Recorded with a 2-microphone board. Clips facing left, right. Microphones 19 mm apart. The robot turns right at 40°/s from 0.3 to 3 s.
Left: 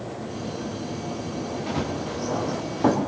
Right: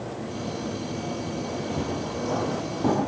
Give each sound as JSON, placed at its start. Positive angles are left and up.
{"t": 1.7, "sound": "running footsteps", "side_deg": 85, "distance_m": 9.0}